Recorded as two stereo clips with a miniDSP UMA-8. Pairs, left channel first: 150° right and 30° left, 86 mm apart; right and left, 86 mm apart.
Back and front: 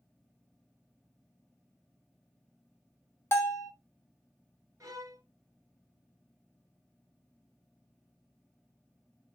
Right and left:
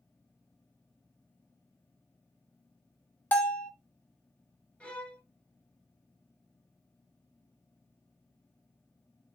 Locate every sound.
3.3 s a bell: 135° right, 0.7 m
4.8 s a violin: 15° right, 0.9 m